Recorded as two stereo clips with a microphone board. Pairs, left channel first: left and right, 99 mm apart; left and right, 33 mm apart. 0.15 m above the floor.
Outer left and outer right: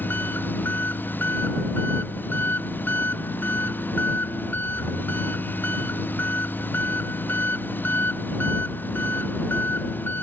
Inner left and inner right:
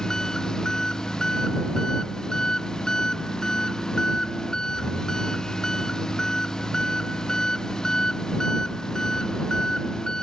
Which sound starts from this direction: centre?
An engine running, at 0.0 s.